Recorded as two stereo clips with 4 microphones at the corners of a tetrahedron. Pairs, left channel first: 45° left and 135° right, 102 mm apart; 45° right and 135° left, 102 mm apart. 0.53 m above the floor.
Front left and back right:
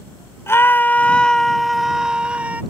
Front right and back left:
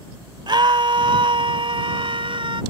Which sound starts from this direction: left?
A scream, at 0.5 s.